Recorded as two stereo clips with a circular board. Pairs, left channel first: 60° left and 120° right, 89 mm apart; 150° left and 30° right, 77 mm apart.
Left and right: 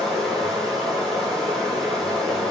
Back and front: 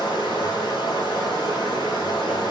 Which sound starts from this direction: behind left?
Running water, at 0.0 s.